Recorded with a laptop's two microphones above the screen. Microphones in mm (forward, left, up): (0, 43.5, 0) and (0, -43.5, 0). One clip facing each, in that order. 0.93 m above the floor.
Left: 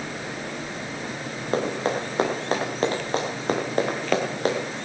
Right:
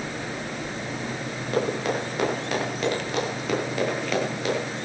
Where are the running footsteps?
35° left (ahead or behind), 6.5 m; by 4.8 s 50° left (ahead or behind), 5.5 m.